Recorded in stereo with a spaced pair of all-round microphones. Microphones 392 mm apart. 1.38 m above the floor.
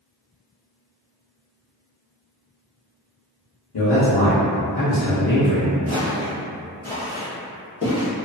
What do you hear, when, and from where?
3.7 s a man speaking: 65° left (ahead or behind), 0.8 m; by 5.8 s 15° left (ahead or behind), 1.1 m
5.9 s footsteps: 20° right (ahead or behind), 1.5 m; by 8.1 s 40° left (ahead or behind), 1.7 m